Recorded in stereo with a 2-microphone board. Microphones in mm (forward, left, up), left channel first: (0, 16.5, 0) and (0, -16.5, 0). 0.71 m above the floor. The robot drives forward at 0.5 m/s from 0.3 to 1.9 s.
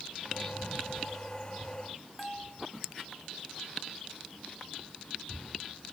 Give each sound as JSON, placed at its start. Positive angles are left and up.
{"t": 2.2, "sound": "a bell", "side_deg": 0}